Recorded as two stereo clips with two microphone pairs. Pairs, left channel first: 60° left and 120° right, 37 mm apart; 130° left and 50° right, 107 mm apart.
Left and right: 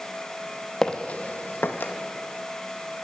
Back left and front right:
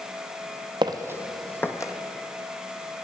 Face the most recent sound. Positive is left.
turn(degrees=75)